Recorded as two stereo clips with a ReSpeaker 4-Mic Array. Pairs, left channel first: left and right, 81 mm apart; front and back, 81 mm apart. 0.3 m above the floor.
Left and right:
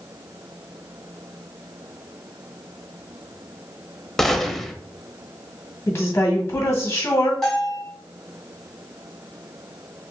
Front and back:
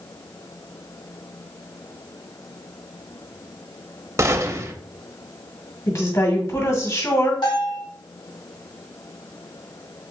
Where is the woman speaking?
40° left, 1.9 m.